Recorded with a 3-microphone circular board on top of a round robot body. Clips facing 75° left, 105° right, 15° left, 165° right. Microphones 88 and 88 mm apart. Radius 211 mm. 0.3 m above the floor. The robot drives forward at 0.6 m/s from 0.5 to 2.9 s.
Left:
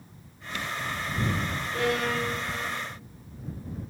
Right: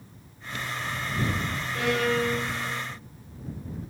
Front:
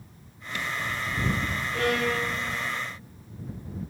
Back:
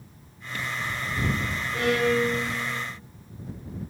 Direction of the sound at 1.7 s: 130° left.